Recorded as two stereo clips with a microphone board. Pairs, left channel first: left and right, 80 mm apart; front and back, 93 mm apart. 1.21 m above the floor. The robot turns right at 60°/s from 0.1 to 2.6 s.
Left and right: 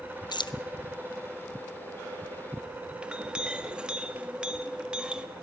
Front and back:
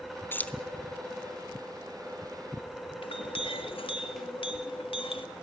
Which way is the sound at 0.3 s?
65° left.